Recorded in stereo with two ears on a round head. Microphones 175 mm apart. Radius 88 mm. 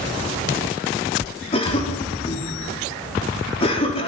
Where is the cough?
30° left (ahead or behind), 4.5 m.